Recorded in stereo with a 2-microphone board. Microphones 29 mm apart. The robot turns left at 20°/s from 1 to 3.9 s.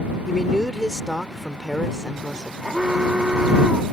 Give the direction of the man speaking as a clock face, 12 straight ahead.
6 o'clock.